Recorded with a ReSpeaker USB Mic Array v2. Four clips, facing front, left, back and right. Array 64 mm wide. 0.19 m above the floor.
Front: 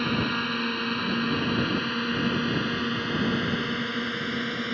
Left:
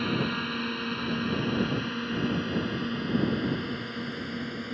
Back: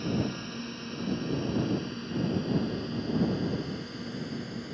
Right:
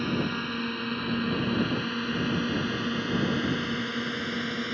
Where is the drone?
5° left; by 4.8 s 25° right.